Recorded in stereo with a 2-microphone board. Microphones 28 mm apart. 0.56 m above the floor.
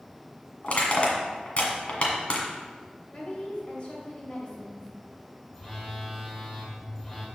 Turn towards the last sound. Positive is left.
turn(degrees=15)  # may be behind; listen again after turning